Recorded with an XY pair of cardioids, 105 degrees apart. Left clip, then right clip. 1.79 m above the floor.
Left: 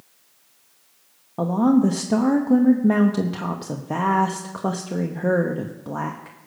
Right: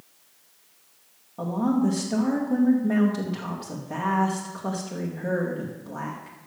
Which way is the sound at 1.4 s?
65° left.